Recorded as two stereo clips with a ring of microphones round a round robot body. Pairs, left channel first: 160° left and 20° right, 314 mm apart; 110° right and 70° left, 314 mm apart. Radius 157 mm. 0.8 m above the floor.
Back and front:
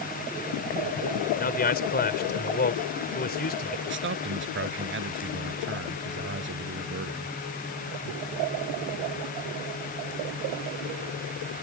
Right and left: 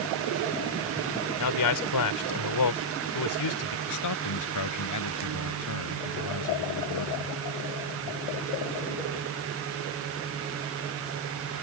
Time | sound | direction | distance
1.4 | a man speaking | 140° right | ?
3.9 | a man speaking | 80° right | ?